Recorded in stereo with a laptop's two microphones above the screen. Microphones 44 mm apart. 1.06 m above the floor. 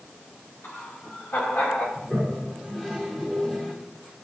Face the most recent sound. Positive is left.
turn(degrees=10)  # may be behind; listen again after turning